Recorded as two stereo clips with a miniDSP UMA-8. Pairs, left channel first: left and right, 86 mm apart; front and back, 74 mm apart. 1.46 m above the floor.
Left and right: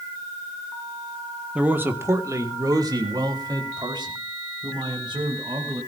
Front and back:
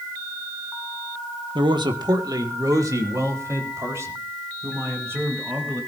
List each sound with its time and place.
1.6 s a man speaking: 165° right, 1.4 m; by 5.8 s 120° right, 7 m